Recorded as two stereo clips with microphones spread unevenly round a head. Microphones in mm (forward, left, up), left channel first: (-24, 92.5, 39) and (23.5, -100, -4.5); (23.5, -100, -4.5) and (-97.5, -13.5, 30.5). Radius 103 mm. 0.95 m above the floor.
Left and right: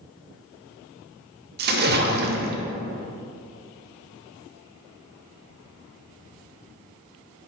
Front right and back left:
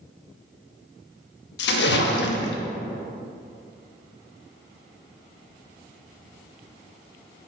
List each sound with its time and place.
1.6 s a splash: 30° right, 0.7 m